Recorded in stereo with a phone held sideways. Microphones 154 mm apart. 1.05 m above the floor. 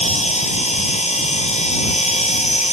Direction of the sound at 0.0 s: 45° left (ahead or behind).